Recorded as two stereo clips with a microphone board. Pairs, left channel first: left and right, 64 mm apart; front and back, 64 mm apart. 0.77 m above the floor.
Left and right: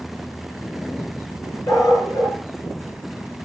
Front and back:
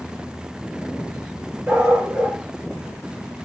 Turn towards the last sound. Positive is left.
turn(degrees=110)